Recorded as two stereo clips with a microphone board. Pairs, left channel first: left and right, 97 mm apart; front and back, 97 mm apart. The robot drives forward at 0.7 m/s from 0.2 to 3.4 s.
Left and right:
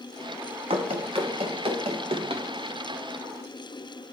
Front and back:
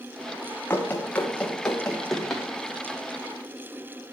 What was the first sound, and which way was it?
Running footsteps, 70° right.